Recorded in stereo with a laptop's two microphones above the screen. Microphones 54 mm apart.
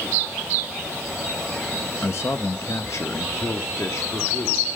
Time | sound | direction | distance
2.0 | a man speaking | 50° left (ahead or behind) | 0.9 m